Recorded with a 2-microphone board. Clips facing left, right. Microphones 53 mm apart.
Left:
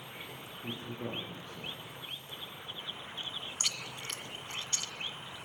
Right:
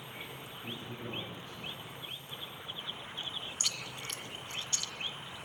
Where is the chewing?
40° left (ahead or behind), 1.6 m.